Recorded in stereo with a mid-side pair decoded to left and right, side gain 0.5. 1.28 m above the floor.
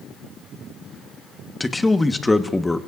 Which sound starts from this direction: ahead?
A man speaking, at 1.6 s.